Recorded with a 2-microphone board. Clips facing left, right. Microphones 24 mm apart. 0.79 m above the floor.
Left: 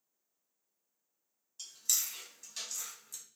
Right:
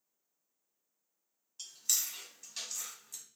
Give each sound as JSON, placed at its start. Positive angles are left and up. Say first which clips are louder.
{"t": 1.6, "sound": "chewing", "louder": "even", "side_deg": -10, "distance_m": 1.3}